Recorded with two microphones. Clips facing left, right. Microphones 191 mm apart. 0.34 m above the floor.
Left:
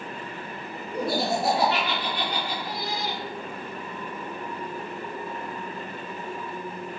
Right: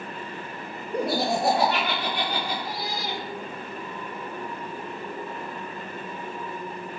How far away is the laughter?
About 2 m.